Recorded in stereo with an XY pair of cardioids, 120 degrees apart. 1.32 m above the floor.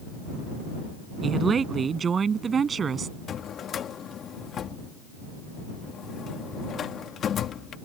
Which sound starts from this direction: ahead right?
A woman speaking, at 1.2 s.